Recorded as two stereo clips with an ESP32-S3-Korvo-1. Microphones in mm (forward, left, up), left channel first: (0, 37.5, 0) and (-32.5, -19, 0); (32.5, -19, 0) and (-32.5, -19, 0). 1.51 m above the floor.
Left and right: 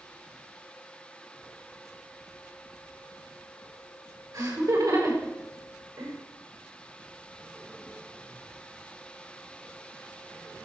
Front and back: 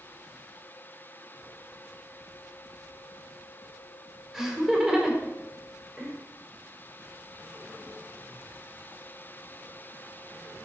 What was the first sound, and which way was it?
Laughter, 100° right.